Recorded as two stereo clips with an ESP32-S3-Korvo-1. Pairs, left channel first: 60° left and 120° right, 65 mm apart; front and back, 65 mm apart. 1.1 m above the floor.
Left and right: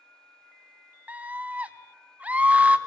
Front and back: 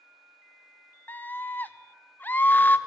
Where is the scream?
55° right, 0.6 m.